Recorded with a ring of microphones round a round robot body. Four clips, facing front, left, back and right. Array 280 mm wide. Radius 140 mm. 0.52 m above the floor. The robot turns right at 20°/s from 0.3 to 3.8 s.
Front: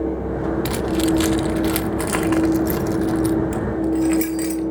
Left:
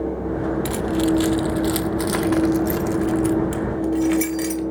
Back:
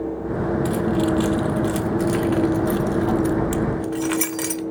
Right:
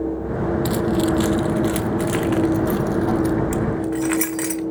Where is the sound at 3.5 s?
140° right, 1.1 m; by 4.6 s 135° right, 1.1 m.